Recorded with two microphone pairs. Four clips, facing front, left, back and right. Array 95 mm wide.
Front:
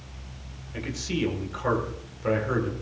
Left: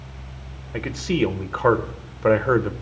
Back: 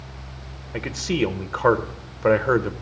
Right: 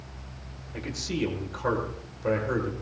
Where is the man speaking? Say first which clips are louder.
Left 8 dB, back 6 dB; 135° left, 1.6 m.